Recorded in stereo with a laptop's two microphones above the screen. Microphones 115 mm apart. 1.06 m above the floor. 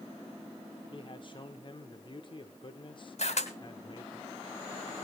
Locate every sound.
0.9 s a man speaking: 40° left (ahead or behind), 0.9 m
3.2 s a camera shutter: 65° left (ahead or behind), 1.8 m